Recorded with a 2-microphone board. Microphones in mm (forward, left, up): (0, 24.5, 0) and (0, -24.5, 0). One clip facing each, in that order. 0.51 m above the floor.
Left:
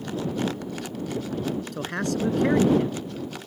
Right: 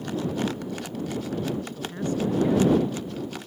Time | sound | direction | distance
1.7 | a man speaking | 80° left | ?